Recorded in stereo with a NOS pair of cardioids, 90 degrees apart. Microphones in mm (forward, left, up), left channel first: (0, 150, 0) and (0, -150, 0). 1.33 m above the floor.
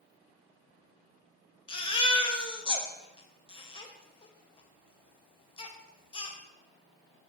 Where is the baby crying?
15° left, 0.6 m.